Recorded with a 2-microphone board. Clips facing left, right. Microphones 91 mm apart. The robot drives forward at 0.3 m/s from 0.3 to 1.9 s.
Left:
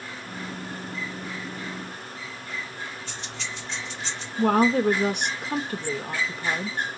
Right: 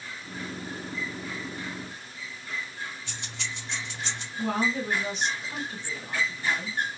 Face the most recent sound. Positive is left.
turn(degrees=60)  # may be behind; listen again after turning